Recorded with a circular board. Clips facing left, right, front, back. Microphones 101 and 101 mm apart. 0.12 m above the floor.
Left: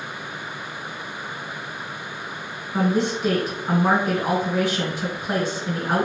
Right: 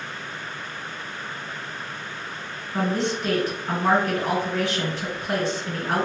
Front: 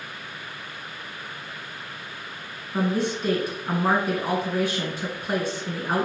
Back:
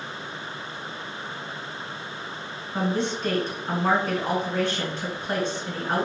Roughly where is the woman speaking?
Ahead left.